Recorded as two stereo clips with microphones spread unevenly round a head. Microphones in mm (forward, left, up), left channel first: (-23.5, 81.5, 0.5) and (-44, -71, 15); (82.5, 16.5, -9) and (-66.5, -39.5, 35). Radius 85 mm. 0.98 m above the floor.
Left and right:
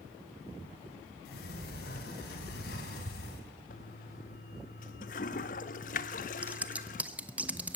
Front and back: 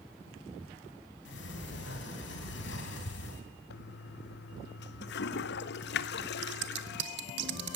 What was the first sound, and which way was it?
A sliding door, 45° left.